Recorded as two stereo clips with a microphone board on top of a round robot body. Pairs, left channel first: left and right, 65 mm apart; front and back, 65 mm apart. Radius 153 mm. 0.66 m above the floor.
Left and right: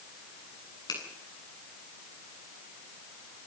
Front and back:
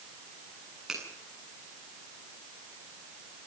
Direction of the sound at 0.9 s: 95° left.